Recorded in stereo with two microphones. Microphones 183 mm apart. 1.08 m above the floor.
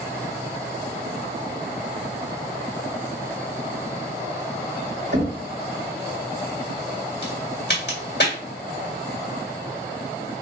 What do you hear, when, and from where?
5.1 s knocking: 70° right (ahead or behind), 2 m
7.2 s a crack: 80° left, 2 m